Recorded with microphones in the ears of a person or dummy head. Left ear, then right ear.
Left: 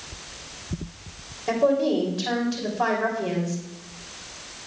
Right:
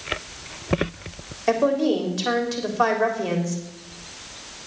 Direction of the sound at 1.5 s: 65° right (ahead or behind).